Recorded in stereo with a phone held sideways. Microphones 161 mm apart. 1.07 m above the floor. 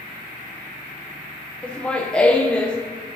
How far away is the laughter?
About 0.6 m.